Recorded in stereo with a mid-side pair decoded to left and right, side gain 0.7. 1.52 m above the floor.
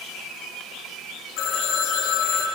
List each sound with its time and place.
1.4 s a phone ringing: 65° left, 1.9 m